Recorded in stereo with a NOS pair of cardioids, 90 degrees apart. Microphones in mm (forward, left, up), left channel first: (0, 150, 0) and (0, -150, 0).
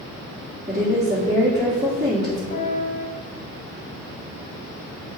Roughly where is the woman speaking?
Ahead.